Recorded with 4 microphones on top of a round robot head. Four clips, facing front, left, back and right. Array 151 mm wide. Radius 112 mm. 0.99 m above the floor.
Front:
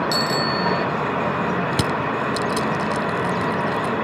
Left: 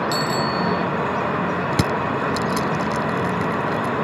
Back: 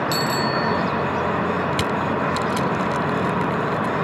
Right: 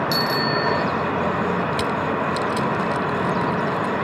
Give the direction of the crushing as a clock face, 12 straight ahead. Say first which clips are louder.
Left 1 dB, even; 10 o'clock.